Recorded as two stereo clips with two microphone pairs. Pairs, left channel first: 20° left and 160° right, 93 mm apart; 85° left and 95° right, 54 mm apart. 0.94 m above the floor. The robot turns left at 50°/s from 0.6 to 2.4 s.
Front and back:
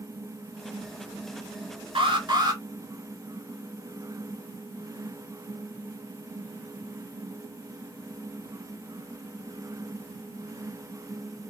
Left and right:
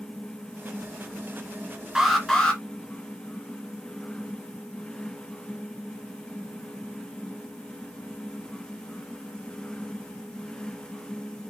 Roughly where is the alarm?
Behind.